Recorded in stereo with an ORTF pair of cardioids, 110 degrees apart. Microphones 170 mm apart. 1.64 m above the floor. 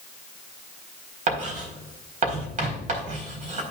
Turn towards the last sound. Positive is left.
turn(degrees=-45)